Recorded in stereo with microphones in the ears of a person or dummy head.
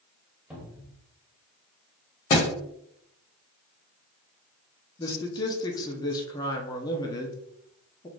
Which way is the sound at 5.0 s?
15° left (ahead or behind).